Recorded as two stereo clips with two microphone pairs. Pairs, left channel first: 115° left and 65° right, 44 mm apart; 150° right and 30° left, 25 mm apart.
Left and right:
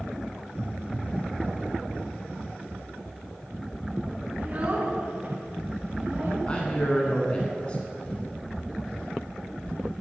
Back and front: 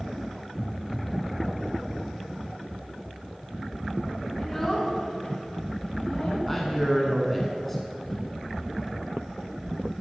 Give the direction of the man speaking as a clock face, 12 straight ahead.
7 o'clock.